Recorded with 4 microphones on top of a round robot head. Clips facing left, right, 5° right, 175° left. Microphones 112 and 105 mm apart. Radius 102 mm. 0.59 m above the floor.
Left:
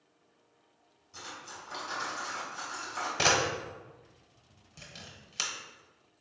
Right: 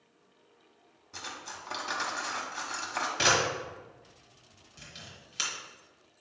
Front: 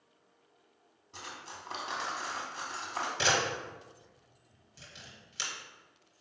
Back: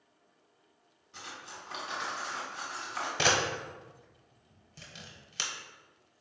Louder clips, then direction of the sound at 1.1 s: Right 2 dB, front 1 dB; 65° right.